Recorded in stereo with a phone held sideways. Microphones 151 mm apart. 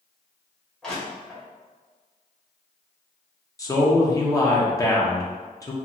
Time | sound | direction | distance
0.8 | crushing | 5° left (ahead or behind) | 2.0 m
3.6 | a man speaking | 25° left (ahead or behind) | 0.8 m